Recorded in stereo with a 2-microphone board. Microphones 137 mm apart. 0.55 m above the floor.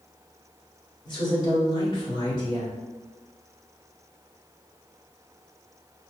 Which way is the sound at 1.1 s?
40° left (ahead or behind).